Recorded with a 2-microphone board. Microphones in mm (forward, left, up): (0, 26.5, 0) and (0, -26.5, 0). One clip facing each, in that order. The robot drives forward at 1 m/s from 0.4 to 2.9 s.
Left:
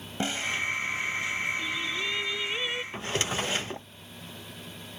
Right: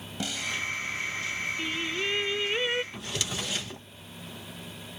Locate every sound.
0.2 s a snare drum: 35° left (ahead or behind); by 0.6 s 30° left (ahead or behind)
1.6 s singing: 60° right (ahead or behind); by 2.8 s 30° right (ahead or behind)
2.9 s a drawer: 35° left (ahead or behind)